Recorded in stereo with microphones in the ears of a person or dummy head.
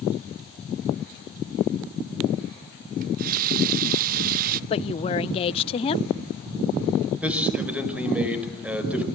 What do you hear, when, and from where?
3.0 s a running tap: 45° right (ahead or behind), 0.6 m
4.7 s a woman speaking: 30° left (ahead or behind), 0.5 m
7.2 s a man speaking: 5° right (ahead or behind), 5 m